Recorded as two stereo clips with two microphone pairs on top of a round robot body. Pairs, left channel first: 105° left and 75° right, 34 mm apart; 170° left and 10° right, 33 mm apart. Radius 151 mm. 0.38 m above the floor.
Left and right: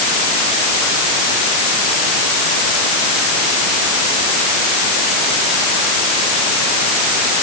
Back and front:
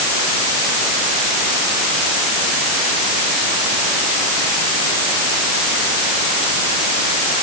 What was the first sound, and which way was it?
Only background noise.